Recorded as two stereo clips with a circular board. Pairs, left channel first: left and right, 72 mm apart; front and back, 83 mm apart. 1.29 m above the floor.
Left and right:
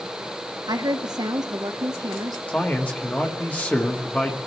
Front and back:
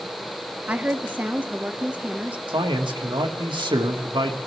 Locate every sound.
0.7 s a woman speaking: 105° right, 1.4 m
2.5 s a man speaking: 160° left, 1.8 m